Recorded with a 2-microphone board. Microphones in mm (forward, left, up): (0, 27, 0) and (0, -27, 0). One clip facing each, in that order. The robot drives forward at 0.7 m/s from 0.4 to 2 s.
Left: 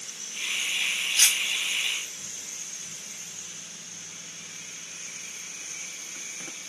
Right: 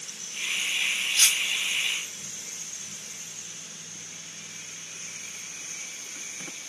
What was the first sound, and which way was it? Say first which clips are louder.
Cutlery clinking: even; 25° left (ahead or behind).